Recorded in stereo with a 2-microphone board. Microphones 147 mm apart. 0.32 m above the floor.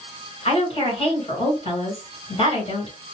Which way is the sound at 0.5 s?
40° left (ahead or behind).